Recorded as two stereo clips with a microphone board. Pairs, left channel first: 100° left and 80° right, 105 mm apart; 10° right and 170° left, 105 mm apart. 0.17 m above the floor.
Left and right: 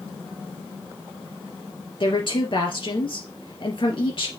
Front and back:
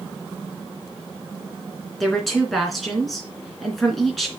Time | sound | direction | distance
2.0 | a woman speaking | 80° left | 2.5 m